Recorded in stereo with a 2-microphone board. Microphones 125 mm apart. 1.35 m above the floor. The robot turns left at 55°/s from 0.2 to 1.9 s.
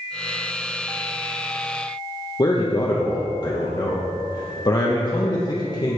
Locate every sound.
2.4 s a man speaking: 35° left (ahead or behind), 0.9 m